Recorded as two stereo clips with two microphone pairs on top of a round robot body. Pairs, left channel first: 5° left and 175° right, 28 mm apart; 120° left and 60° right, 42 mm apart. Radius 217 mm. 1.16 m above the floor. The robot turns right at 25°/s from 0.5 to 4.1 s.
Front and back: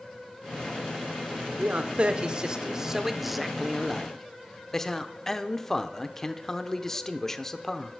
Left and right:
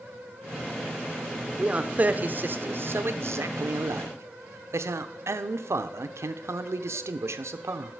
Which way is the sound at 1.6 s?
125° right.